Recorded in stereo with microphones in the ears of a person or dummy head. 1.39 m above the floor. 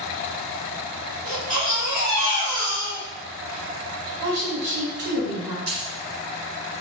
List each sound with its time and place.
1.2 s a baby crying: 35° right (ahead or behind), 1.0 m
4.2 s a woman speaking: 50° right (ahead or behind), 1.3 m
5.7 s a dropped coin: 65° right (ahead or behind), 1.5 m